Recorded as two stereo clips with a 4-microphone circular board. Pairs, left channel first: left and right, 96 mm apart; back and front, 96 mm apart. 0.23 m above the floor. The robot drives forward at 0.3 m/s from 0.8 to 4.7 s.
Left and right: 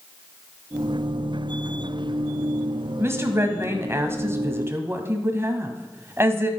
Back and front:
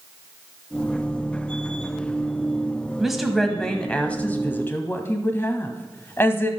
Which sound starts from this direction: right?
A woman speaking, at 3.0 s.